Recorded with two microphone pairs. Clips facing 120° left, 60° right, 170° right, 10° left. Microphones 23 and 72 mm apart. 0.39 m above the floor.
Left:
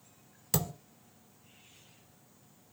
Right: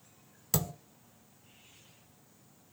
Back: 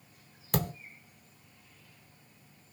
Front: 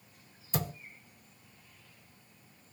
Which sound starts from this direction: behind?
A thud, at 0.5 s.